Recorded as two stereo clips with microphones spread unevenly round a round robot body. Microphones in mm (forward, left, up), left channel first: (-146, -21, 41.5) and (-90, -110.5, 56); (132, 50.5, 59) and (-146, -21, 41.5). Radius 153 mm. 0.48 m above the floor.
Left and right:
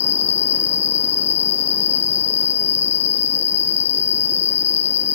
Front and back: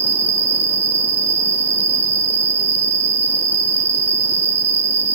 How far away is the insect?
About 0.9 m.